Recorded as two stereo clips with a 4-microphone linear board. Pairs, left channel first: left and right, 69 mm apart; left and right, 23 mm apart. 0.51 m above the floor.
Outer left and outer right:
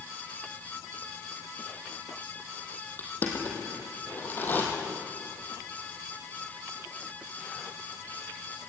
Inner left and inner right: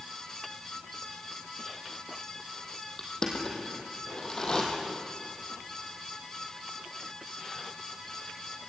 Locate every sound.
3.0 s crushing: 30° left (ahead or behind), 3.5 m